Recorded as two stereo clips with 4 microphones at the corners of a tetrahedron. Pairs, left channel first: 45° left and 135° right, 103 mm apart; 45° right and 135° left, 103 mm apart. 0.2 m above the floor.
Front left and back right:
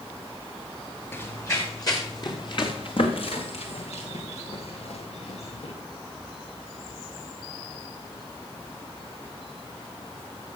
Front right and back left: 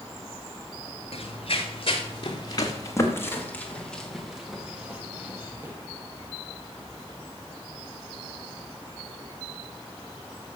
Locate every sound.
1.1 s running footsteps: 20° right, 3.5 m; by 5.7 s 65° left, 4 m